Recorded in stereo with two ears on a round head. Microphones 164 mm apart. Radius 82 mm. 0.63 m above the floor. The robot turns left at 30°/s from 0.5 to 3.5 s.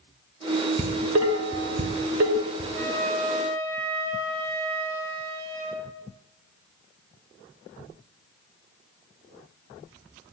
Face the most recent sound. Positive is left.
turn(degrees=-35)  # may be behind; listen again after turning